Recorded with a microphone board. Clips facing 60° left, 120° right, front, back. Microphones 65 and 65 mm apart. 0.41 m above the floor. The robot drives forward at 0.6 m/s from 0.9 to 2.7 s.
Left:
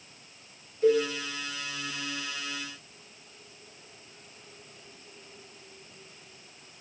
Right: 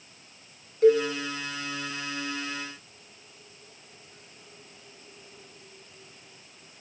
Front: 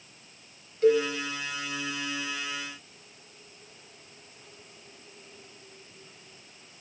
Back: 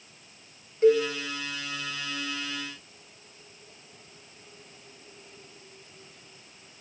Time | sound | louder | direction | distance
0.8 | a cowbell | right 4 dB, back 2 dB | 115° right | 0.7 m